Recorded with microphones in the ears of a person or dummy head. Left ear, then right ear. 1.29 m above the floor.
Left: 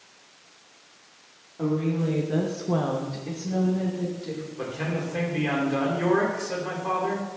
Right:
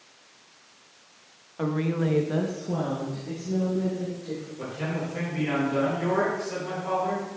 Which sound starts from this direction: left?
A man speaking, at 4.6 s.